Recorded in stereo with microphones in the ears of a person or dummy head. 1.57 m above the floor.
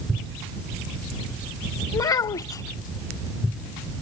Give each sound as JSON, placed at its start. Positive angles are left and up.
{"t": 1.9, "sound": "a child speaking", "side_deg": 30}